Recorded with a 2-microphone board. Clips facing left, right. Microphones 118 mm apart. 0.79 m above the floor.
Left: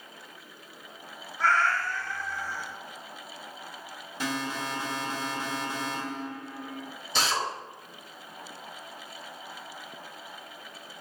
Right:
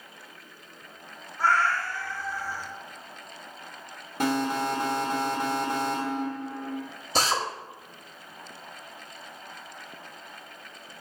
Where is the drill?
45° right (ahead or behind), 0.7 m.